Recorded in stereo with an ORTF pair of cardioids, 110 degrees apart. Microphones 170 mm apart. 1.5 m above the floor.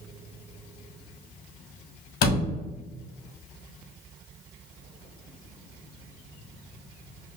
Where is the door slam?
65° left, 1.5 m.